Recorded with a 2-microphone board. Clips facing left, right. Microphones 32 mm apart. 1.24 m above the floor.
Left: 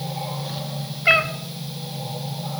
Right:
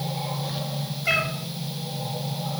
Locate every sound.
1.1 s a cat meowing: 30° left (ahead or behind), 1.7 m